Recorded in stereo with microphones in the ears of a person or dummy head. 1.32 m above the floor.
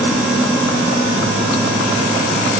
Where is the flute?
No flute in this recording.